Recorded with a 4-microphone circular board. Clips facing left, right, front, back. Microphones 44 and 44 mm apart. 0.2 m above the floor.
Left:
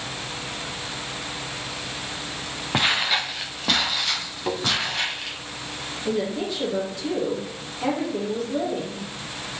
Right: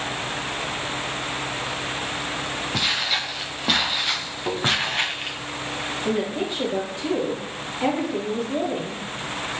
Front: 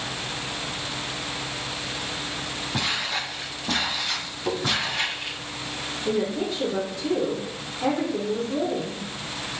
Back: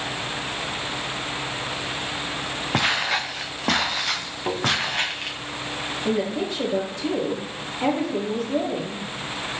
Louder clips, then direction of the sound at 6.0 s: Even, even; 155° right.